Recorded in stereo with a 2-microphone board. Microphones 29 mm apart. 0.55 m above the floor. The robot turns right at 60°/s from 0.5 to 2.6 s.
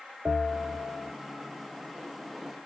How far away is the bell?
About 1.6 m.